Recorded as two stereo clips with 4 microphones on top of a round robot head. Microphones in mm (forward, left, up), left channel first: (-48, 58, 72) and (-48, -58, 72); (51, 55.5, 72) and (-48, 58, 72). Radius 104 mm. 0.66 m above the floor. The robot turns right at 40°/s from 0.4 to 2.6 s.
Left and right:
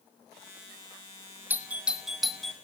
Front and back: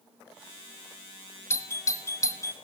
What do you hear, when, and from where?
1.5 s a doorbell: 30° right, 1.3 m; by 2.5 s 10° left, 1.3 m